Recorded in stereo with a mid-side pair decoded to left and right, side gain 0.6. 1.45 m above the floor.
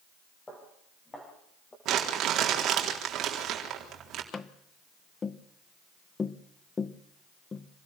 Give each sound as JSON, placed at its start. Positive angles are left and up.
{"t": 0.5, "sound": "footsteps", "azimuth_deg": 20, "distance_m": 6.5}
{"t": 1.9, "sound": "crumpling", "azimuth_deg": -55, "distance_m": 4.0}
{"t": 4.3, "sound": "tapping", "azimuth_deg": 30, "distance_m": 0.9}